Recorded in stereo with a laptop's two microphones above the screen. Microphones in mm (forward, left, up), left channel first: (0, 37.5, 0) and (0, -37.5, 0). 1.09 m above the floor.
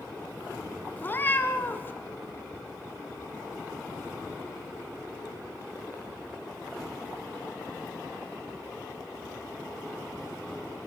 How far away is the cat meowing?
About 1.6 m.